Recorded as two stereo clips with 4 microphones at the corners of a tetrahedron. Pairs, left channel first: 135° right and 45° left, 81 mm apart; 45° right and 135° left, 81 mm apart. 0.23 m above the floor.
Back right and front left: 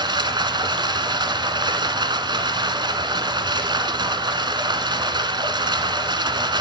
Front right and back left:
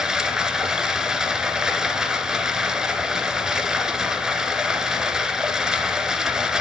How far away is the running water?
About 1.3 m.